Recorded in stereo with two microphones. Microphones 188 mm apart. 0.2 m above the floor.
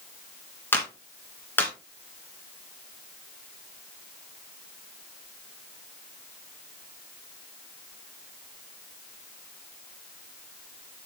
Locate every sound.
0.7 s a clap: 10° left (ahead or behind), 2 m